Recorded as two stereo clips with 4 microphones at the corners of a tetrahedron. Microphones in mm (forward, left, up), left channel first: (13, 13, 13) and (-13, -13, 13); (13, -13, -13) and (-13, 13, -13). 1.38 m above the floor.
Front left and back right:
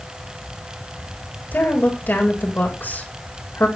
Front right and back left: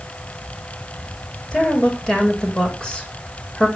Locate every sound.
1.5 s a woman speaking: 20° left, 8 m